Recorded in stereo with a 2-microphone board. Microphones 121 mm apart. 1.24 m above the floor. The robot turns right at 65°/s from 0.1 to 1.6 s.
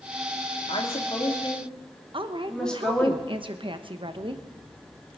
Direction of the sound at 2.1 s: 45° right (ahead or behind).